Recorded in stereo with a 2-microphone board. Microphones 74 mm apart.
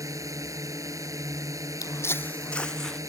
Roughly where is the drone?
Right.